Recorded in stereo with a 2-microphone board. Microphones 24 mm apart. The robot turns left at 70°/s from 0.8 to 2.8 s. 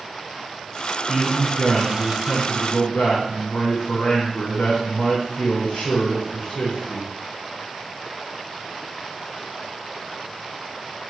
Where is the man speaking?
160° right, 3 m; by 7.1 s 80° left, 3 m.